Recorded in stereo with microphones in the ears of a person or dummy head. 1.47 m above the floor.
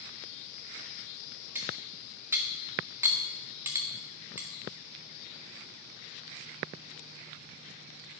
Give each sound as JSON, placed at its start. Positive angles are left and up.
{"t": 1.6, "sound": "cutlery clinking", "side_deg": -5, "distance_m": 1.3}